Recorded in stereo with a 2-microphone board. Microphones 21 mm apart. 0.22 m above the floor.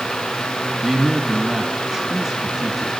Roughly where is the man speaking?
Right.